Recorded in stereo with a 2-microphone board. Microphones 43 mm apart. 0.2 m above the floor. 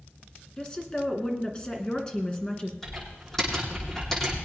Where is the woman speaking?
20° left (ahead or behind), 2.5 m.